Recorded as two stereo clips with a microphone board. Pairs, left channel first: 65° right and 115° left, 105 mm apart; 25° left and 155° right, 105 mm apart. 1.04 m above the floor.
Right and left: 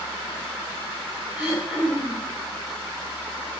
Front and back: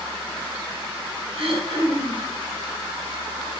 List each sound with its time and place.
1.3 s throat clearing: 170° right, 5.5 m